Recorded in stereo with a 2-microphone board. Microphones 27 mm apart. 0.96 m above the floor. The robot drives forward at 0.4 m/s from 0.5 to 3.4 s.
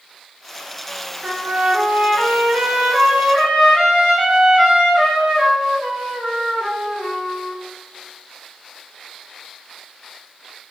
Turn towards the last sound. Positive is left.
turn(degrees=-35)  # may be behind; listen again after turning